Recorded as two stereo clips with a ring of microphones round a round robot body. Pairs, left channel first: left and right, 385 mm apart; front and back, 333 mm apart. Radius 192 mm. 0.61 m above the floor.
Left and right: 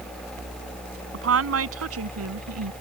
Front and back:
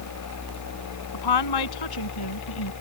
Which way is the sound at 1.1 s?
35° right.